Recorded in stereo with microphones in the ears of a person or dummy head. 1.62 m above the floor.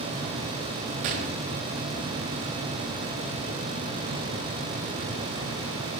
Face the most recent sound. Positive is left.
turn(degrees=-45)  # may be behind; listen again after turning